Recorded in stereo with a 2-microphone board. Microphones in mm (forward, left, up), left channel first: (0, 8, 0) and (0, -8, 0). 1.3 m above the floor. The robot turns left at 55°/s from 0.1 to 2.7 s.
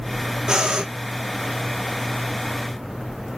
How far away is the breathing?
About 0.9 m.